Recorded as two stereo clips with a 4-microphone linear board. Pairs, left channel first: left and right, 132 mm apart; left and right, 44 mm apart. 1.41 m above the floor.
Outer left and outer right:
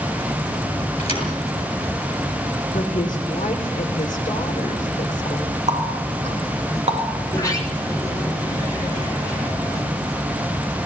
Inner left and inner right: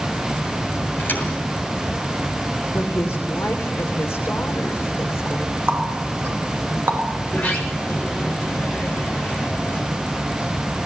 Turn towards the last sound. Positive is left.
turn(degrees=25)  # may be behind; listen again after turning